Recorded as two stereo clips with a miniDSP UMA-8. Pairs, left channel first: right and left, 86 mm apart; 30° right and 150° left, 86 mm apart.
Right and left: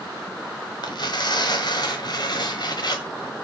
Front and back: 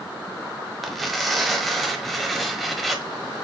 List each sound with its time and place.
0.8 s tearing paper: 120° right, 1.2 m